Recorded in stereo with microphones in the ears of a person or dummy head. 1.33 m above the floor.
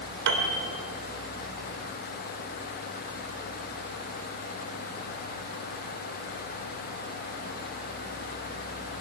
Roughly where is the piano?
Right.